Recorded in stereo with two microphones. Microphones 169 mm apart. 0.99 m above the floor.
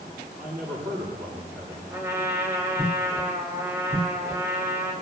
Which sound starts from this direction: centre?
A trumpet, at 1.9 s.